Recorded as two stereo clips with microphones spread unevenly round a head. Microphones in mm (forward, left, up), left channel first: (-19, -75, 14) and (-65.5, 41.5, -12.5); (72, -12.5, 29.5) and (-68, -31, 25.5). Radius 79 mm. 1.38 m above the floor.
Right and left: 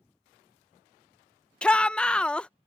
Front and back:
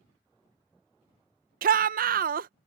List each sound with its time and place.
1.6 s a shout: 145° right